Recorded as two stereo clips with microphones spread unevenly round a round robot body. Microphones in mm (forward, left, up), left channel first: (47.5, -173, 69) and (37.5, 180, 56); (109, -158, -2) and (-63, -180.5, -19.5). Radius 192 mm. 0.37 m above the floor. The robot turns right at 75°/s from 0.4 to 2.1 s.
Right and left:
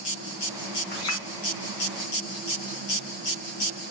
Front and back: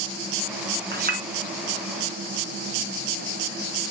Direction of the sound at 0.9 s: 150° right.